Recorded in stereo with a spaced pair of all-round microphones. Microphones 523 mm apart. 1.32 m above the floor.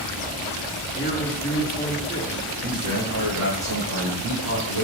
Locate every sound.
0.9 s a man speaking: 15° left (ahead or behind), 2.5 m
2.6 s a man speaking: 45° right (ahead or behind), 4 m